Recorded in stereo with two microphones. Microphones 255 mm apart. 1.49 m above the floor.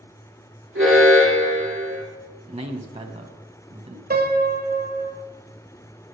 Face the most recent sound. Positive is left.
turn(degrees=-40)  # may be behind; listen again after turning